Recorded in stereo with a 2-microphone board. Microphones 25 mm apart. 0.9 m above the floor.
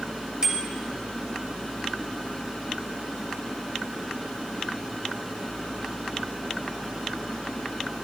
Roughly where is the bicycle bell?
Right.